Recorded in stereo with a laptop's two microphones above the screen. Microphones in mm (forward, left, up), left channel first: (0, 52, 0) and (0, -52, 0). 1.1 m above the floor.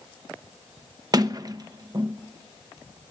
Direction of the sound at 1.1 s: 40° right (ahead or behind).